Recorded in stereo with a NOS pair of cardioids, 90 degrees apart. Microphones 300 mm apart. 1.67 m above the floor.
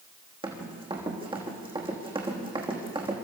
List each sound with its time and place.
0.4 s running footsteps: 15° right, 5.5 m